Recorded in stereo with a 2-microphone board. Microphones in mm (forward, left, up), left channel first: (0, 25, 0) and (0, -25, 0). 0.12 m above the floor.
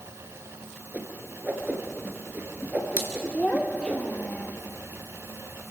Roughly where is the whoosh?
Right.